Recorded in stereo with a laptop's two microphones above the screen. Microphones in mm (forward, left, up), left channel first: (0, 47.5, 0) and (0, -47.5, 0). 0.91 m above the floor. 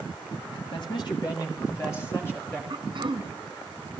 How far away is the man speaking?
About 1.7 m.